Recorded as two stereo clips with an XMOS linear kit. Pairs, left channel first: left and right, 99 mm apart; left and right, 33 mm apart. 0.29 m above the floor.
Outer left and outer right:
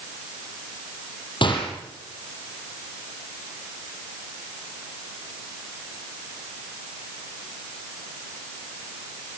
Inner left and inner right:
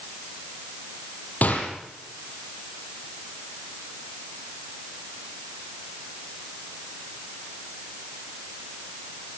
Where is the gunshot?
55° left (ahead or behind), 6 m.